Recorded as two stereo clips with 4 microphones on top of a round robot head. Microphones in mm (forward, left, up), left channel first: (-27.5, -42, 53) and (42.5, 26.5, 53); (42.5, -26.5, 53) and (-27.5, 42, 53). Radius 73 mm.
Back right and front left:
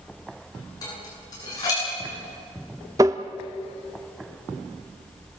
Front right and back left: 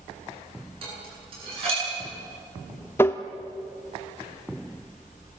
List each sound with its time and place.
0.8 s dishes clattering: 170° left, 9.5 m
3.0 s tapping: 10° left, 0.6 m